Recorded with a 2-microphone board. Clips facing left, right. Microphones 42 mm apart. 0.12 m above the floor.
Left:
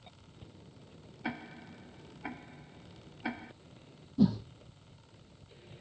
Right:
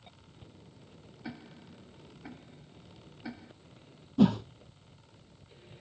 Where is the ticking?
55° left (ahead or behind).